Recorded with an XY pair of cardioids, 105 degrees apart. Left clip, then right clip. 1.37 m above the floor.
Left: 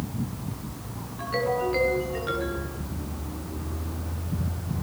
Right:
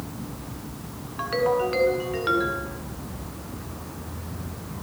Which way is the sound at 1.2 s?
60° right.